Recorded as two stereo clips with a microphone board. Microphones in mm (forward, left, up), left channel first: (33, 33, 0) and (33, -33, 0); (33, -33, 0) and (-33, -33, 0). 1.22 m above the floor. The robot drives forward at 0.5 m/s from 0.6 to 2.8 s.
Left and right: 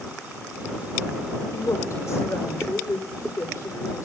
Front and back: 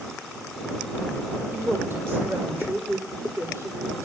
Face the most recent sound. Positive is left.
turn(degrees=130)